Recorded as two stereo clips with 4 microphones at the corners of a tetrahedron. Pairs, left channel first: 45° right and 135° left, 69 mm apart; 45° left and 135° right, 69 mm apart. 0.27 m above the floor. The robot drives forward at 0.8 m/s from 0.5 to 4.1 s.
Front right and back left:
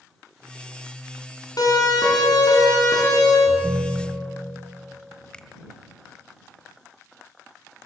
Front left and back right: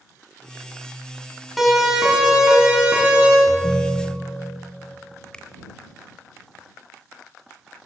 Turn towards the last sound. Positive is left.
turn(degrees=0)